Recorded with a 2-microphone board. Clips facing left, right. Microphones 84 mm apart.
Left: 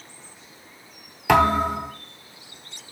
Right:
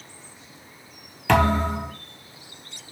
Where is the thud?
10° left (ahead or behind), 1.0 m.